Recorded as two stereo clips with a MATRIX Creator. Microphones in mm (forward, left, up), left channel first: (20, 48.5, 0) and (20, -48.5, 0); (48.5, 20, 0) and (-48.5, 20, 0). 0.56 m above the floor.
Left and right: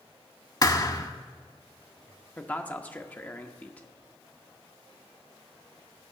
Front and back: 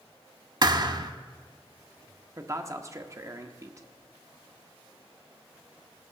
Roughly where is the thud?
Behind left.